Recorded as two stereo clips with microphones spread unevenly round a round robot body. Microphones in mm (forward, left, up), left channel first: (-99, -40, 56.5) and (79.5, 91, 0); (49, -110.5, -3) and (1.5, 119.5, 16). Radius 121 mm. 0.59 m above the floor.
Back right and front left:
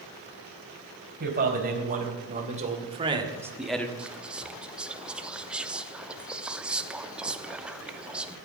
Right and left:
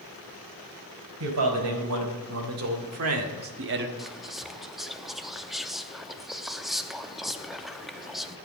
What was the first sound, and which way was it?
A man speaking, 80° left.